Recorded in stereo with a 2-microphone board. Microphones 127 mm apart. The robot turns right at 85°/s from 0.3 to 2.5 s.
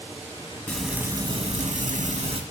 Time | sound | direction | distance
0.7 | frying | 165° left | 3 m